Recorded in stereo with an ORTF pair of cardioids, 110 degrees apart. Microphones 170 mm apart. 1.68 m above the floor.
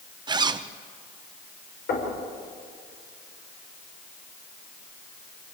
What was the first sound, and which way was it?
A zipper, 25° right.